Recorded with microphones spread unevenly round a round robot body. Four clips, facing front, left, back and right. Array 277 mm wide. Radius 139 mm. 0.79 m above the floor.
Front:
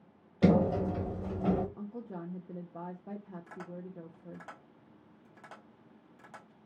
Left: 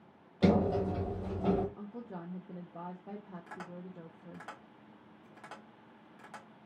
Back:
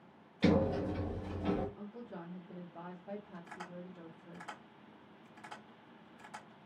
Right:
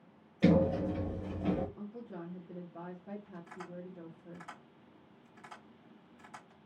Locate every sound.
0.4 s a sliding door: 20° left, 0.9 m
1.8 s a woman speaking: 15° left, 0.8 m
3.5 s tapping: 55° left, 2 m